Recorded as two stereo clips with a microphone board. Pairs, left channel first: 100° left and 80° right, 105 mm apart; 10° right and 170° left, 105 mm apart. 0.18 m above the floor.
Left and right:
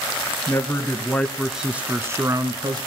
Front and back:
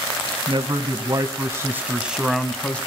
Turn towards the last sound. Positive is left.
turn(degrees=-80)